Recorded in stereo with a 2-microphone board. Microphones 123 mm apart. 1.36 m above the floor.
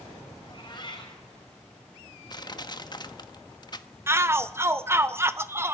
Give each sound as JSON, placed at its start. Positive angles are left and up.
{"t": 0.4, "sound": "a cat meowing", "side_deg": 35, "distance_m": 5.5}
{"t": 2.3, "sound": "crushing", "side_deg": 35, "distance_m": 1.0}
{"t": 4.1, "sound": "a shout", "side_deg": -20, "distance_m": 1.1}